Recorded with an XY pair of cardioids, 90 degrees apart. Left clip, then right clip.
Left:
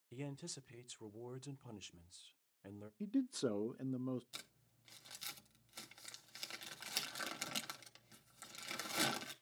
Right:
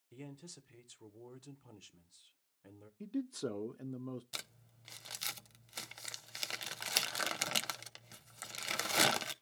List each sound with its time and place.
0.1 s a man speaking: 35° left, 0.8 m
3.0 s a man speaking: 15° left, 0.5 m
4.3 s crumpling: 70° right, 0.9 m